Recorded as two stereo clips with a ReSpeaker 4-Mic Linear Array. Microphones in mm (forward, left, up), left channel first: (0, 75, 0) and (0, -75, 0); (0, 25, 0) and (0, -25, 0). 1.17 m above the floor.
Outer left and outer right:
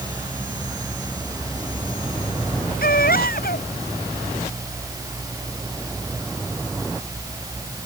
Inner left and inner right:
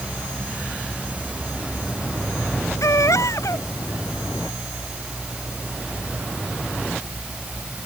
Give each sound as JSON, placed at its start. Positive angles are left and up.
{"t": 2.8, "sound": "a baby crying", "side_deg": 80}